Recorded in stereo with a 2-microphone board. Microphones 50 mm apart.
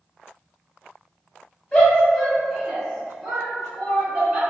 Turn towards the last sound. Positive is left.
turn(degrees=-25)  # may be behind; listen again after turning